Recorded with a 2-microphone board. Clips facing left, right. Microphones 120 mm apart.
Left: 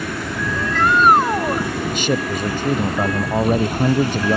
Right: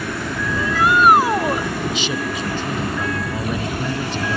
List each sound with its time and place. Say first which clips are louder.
0.5 s a shout: even; 10° right (ahead or behind); by 1.7 s 5° right (ahead or behind)
1.9 s a man speaking: left 3 dB; 50° left (ahead or behind)